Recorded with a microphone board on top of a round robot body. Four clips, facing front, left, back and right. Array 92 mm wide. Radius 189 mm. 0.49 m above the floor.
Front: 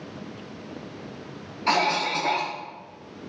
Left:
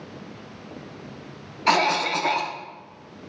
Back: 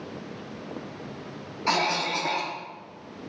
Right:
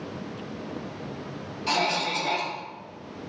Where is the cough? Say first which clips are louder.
Left 6 dB, front 3 dB; 80° left, 1.1 m.